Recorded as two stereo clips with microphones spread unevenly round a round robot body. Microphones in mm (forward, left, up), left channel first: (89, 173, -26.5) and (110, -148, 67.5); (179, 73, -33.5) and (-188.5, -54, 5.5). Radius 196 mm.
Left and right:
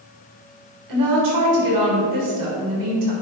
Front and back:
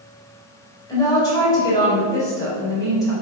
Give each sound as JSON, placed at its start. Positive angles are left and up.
{"t": 0.9, "sound": "a woman speaking", "azimuth_deg": -60, "distance_m": 3.5}